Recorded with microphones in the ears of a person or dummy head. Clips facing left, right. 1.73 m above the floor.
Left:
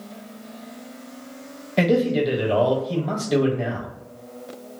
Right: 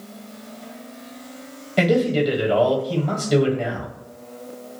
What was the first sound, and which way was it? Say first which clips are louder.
A man speaking: right 1 dB; centre (ahead or behind).